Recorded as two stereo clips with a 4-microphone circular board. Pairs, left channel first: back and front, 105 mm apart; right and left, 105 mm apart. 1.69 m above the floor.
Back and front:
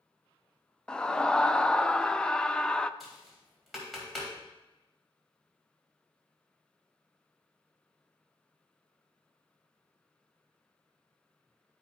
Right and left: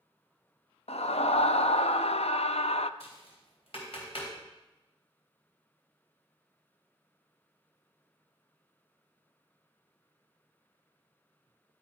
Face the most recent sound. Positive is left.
turn(degrees=-90)